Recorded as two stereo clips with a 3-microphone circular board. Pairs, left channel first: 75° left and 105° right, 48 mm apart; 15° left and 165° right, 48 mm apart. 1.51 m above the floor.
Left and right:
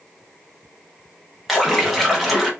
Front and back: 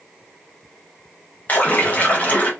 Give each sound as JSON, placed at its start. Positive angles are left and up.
{"t": 1.5, "sound": "a splash", "azimuth_deg": -20, "distance_m": 0.8}